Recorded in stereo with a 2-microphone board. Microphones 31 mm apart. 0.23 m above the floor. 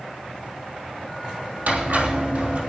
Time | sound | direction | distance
1.7 | a squeak | 70° right (ahead or behind) | 3.5 m